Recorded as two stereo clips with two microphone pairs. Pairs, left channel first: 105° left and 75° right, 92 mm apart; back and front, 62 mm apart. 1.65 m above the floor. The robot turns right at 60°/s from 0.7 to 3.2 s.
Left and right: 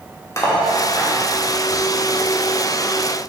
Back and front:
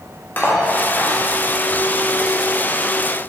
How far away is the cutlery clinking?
About 1.2 m.